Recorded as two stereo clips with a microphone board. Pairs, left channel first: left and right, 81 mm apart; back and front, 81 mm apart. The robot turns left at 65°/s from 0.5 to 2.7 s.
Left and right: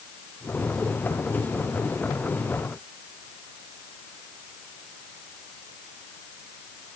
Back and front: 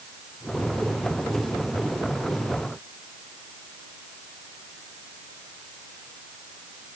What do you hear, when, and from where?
Only background noise.